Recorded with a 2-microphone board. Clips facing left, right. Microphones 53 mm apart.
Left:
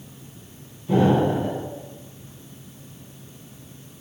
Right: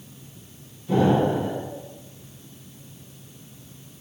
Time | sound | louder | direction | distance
0.9 | an explosion | left 1 dB | 10° left (ahead or behind) | 1.6 m